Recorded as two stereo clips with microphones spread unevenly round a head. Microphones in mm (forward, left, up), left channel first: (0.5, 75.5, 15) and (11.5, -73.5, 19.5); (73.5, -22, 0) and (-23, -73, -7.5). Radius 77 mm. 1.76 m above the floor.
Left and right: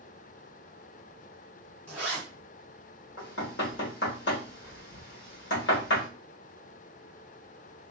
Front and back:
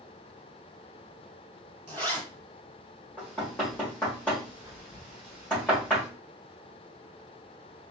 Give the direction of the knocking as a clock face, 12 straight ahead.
8 o'clock.